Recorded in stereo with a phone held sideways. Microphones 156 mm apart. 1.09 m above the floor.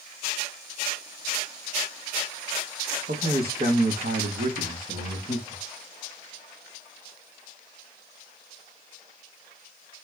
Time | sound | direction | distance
3.1 | a man speaking | 70° right (ahead or behind) | 1.2 m